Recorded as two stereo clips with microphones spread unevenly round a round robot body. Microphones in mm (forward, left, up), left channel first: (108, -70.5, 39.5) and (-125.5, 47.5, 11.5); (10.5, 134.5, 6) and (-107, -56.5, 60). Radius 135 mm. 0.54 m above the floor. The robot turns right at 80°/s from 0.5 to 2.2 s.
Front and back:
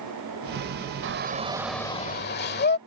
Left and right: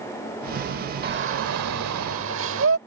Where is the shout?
175° right; by 2.8 s 80° right.